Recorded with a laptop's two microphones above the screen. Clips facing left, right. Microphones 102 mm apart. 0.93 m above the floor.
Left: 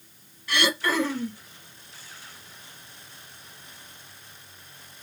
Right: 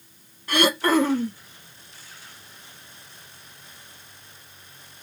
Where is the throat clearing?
45° right (ahead or behind), 0.5 m.